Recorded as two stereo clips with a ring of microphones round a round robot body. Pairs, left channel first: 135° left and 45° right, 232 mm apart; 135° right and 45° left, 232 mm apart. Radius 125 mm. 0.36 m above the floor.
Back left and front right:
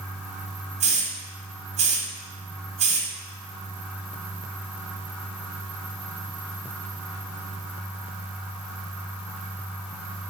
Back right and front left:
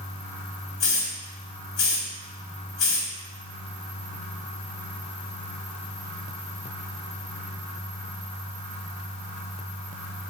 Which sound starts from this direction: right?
A hiss, at 0.8 s.